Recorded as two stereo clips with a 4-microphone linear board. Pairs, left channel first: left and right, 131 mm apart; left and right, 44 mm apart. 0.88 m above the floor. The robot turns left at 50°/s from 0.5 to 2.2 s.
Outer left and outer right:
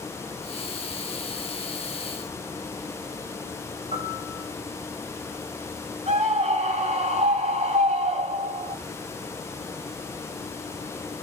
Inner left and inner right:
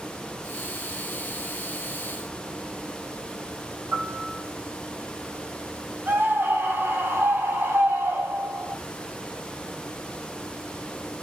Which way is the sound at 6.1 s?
55° right (ahead or behind).